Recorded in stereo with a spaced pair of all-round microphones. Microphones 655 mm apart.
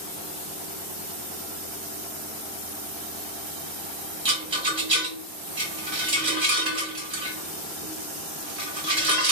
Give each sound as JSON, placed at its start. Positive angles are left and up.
{"t": 4.2, "sound": "a rattle", "side_deg": -45, "distance_m": 1.8}